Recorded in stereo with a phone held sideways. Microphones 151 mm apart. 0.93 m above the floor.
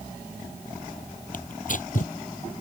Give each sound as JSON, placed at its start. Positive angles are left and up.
{"t": 1.3, "sound": "tearing paper", "side_deg": 60}